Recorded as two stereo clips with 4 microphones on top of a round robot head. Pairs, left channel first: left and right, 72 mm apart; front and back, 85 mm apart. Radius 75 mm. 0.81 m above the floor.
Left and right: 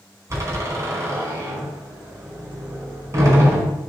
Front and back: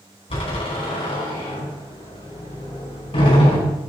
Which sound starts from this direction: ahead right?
A door slam, at 0.3 s.